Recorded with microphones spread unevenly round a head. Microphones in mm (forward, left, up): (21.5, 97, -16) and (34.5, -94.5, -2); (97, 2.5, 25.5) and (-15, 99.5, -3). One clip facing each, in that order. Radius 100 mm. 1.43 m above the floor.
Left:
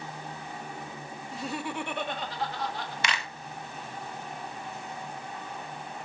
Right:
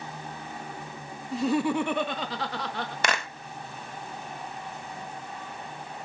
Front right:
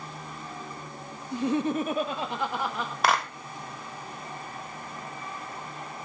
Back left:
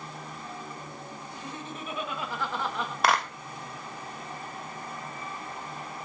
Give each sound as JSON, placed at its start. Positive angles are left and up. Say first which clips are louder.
{"t": 1.3, "sound": "laughter", "louder": "right 10 dB, front right 18 dB", "azimuth_deg": -75, "distance_m": 1.3}
{"t": 3.0, "sound": "a clap", "louder": "right 6 dB, even", "azimuth_deg": -125, "distance_m": 1.0}